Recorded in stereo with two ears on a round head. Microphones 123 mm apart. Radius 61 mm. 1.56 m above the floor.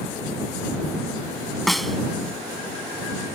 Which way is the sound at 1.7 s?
Centre (ahead or behind).